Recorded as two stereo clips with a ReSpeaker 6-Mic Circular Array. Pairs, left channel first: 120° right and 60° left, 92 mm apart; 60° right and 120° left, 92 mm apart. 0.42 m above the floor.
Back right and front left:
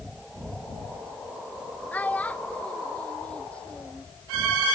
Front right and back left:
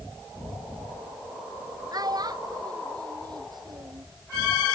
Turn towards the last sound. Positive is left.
turn(degrees=160)